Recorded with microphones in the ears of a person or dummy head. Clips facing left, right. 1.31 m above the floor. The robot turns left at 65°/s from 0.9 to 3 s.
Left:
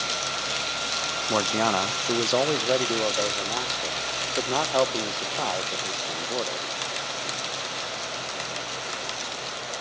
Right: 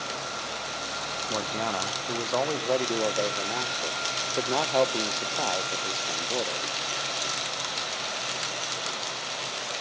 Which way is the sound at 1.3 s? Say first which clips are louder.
Left 7 dB; 110° left.